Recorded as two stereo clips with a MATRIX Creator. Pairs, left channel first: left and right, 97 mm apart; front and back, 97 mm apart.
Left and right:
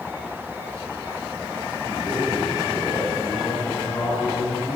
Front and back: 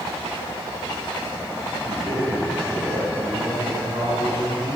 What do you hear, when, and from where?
1.9 s a man speaking: 145° left, 9.5 m